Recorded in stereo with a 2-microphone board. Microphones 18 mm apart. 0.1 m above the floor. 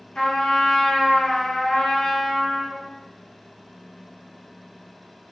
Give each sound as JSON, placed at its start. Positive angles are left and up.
{"t": 0.1, "sound": "a trumpet", "side_deg": 50, "distance_m": 0.9}